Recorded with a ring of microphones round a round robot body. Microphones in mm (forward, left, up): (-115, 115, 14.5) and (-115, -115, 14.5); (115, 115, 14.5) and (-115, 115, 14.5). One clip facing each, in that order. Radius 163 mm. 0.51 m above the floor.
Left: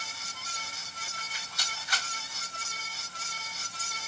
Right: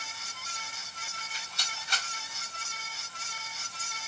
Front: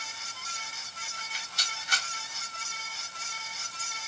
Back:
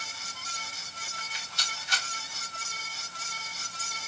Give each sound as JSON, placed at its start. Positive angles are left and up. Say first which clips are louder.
{"t": 1.2, "sound": "a rattle", "louder": "right 1 dB, front 1 dB", "azimuth_deg": -30, "distance_m": 1.8}